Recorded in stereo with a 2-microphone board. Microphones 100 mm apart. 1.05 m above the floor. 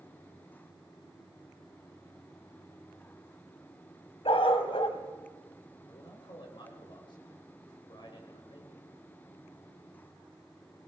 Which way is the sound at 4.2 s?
65° left (ahead or behind).